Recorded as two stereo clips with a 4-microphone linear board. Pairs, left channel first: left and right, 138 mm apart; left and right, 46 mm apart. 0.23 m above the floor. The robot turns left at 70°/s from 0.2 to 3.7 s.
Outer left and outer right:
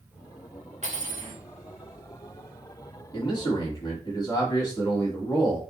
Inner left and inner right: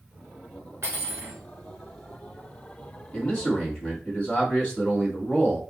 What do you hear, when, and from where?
0.8 s cutlery clinking: 75° right, 1.7 m; by 1.4 s 115° right, 1.7 m
3.1 s a man speaking: 100° left, 1.9 m; by 5.6 s 60° left, 1.9 m